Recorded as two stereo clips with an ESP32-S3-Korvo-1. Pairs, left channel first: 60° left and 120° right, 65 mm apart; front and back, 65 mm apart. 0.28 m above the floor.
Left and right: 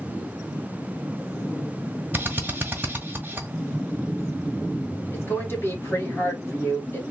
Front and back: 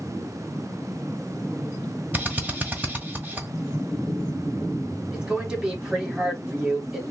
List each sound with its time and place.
2.1 s a drill: 145° right, 1.4 m
5.1 s a woman speaking: 105° left, 2 m